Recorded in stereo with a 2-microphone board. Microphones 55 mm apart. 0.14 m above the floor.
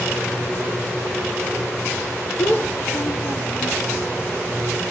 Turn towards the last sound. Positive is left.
turn(degrees=45)  # may be behind; listen again after turning